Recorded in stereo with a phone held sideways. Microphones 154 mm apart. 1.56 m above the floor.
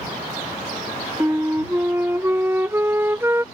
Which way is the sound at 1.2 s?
15° right (ahead or behind).